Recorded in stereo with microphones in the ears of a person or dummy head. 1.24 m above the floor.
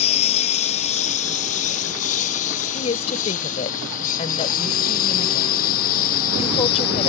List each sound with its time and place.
0.0 s a lawn mower: 35° left (ahead or behind); by 7.1 s 55° left (ahead or behind)
2.7 s a woman speaking: 35° left (ahead or behind)